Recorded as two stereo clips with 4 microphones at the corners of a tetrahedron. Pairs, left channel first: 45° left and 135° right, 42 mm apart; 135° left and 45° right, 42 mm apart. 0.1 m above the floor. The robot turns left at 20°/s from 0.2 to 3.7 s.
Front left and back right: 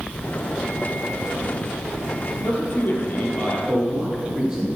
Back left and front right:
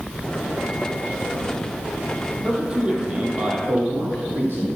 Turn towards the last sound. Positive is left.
turn(degrees=-65)